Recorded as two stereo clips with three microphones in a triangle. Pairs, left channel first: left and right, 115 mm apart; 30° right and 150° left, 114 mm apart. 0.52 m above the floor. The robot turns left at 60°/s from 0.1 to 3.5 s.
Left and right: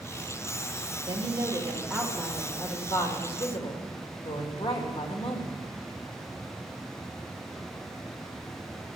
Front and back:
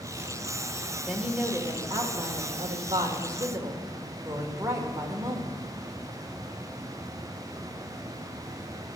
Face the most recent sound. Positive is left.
turn(degrees=95)